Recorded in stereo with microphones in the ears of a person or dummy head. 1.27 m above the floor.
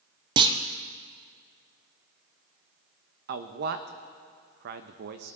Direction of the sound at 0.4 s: 25° right (ahead or behind).